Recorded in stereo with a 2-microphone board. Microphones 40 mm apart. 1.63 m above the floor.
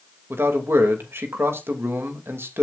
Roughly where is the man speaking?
Right.